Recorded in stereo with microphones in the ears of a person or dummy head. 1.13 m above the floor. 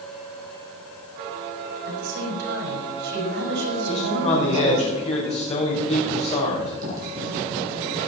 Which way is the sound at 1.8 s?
75° right (ahead or behind).